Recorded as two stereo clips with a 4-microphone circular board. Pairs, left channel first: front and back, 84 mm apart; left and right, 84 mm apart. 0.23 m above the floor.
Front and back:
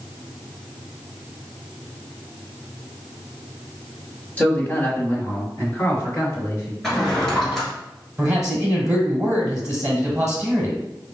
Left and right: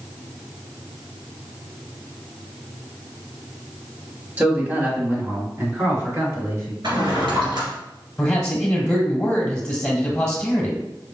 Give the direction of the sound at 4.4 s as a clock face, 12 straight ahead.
1 o'clock.